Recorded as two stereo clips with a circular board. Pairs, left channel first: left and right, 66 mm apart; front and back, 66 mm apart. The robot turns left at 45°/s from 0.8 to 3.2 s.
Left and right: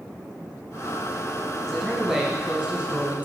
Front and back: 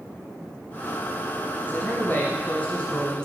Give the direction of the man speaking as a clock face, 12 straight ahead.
12 o'clock.